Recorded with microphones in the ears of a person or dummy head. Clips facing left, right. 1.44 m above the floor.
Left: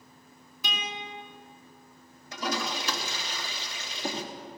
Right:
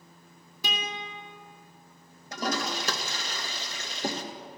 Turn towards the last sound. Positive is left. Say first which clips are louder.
# right 1 dB
turn(degrees=-40)  # may be behind; listen again after turning